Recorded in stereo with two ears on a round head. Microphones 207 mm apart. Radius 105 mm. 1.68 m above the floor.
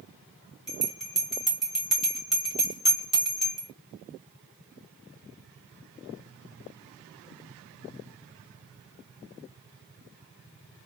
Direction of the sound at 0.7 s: Centre (ahead or behind).